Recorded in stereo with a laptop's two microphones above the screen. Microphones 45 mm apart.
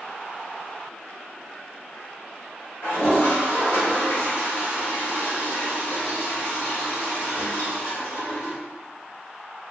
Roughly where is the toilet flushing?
Left.